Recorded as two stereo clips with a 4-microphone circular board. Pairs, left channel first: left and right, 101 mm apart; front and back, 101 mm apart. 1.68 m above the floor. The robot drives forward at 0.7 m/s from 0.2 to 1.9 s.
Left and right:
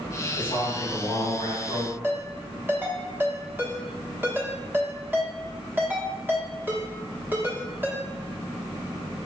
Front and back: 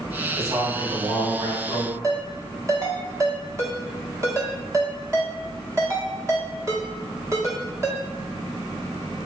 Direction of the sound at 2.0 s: 145° right.